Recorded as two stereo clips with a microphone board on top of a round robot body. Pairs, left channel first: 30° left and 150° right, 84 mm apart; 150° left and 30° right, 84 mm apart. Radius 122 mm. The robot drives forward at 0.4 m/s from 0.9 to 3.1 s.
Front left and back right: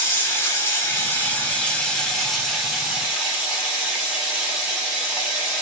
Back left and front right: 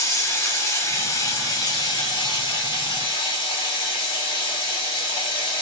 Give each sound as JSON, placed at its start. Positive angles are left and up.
{"t": 0.0, "sound": "running water", "azimuth_deg": 95, "distance_m": 1.2}